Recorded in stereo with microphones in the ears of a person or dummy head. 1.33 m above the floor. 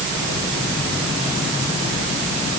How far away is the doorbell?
No doorbell in this recording.